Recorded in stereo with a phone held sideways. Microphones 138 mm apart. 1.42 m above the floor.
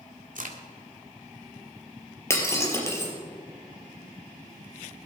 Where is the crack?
65° right (ahead or behind), 1.8 m.